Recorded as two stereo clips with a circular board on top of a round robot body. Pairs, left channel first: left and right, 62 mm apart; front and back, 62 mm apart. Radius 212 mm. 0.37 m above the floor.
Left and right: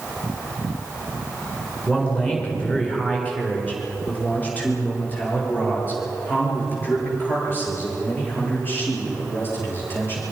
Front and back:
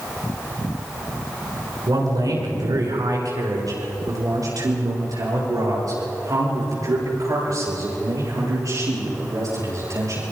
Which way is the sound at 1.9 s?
165° left.